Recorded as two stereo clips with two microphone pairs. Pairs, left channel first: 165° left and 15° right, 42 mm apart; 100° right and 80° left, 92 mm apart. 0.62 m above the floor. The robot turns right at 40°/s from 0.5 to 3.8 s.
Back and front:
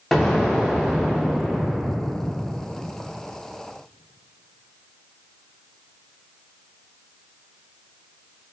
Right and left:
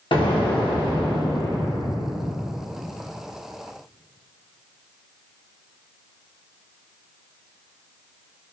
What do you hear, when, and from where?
0.1 s an explosion: 110° right, 0.8 m; by 2.3 s 35° right, 0.8 m